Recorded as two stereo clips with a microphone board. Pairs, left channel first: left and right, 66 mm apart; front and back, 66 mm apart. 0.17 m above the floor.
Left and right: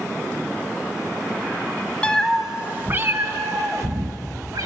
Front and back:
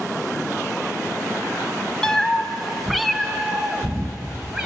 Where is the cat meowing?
60° left, 0.6 m; by 4.7 s 100° right, 1.6 m.